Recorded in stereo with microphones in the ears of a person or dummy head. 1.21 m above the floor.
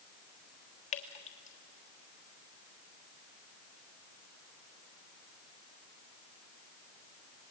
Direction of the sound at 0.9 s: 35° left (ahead or behind).